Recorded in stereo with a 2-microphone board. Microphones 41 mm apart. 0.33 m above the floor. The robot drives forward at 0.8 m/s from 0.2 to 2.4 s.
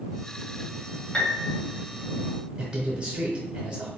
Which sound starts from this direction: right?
A man speaking, at 2.6 s.